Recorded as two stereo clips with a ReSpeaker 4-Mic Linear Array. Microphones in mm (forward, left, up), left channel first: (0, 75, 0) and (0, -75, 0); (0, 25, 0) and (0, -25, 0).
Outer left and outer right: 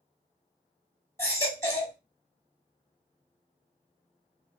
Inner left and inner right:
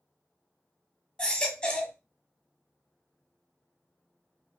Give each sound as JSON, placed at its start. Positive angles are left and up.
{"t": 1.2, "sound": "a baby crying", "side_deg": 20, "distance_m": 1.4}